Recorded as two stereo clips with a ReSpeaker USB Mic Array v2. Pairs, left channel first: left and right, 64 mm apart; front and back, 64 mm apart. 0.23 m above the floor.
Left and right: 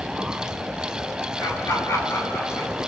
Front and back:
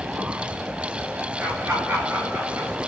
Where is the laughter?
115° left, 3 m.